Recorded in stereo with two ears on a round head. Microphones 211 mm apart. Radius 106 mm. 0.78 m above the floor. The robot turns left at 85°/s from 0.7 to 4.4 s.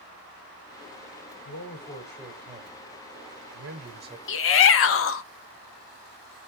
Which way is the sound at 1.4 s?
65° left.